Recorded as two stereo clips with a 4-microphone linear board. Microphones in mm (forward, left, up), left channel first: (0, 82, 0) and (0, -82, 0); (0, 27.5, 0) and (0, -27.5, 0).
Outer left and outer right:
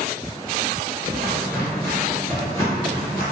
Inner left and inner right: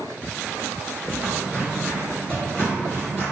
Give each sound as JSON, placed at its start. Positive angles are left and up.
{"t": 1.1, "sound": "footsteps", "side_deg": -20, "distance_m": 1.6}